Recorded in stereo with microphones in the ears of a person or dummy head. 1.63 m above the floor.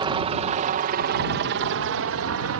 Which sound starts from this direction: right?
A helicopter, at 0.0 s.